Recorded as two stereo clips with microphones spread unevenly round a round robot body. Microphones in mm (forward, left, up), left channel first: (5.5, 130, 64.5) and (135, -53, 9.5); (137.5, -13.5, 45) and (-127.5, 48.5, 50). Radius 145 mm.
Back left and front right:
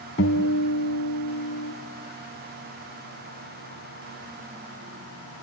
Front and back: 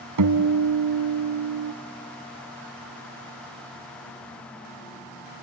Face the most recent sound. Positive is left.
turn(degrees=180)